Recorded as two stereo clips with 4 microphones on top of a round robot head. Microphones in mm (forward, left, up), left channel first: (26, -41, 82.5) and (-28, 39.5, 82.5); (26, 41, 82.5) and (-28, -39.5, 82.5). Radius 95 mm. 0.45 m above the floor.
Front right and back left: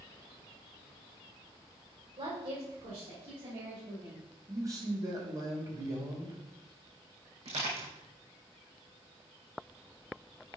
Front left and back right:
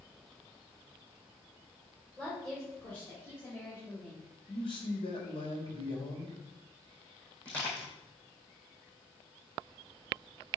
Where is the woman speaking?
140° left, 2.5 m; by 4.2 s 110° left, 3 m.